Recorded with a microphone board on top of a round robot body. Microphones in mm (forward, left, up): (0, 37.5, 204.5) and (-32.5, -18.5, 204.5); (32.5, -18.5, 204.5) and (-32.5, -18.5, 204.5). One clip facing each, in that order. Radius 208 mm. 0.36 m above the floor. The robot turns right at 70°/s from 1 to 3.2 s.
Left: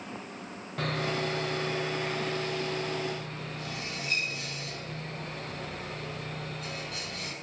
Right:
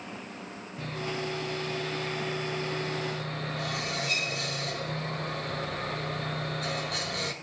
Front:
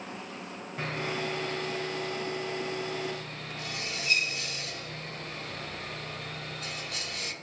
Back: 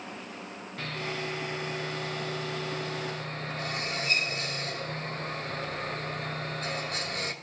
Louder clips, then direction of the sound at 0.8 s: Left 4 dB, front 2 dB; 70° left.